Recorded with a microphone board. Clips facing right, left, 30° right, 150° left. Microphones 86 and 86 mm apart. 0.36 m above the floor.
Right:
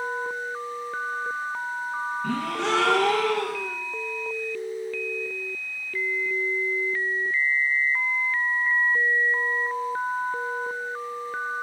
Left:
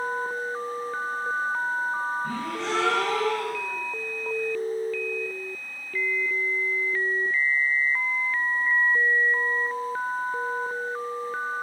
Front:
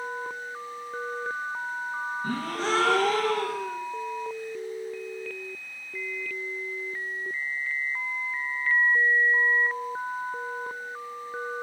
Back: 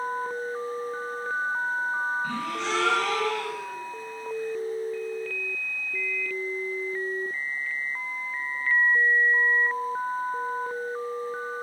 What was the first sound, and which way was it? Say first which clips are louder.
A gasp: right 3 dB, front 1 dB; 75° right.